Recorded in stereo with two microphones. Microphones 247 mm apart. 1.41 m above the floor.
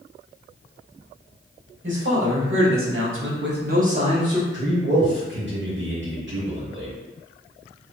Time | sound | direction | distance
1.8 | a man speaking | 50° right (ahead or behind) | 1.1 m
4.5 | a man speaking | 50° right (ahead or behind) | 1.1 m